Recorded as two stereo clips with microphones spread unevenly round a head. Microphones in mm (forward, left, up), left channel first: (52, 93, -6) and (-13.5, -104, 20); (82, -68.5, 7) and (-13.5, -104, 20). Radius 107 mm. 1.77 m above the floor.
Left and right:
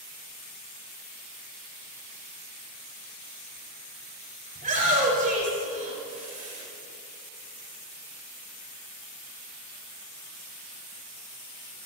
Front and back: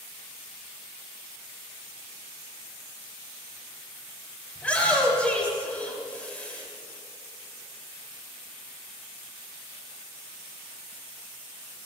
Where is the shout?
55° right, 5.5 m.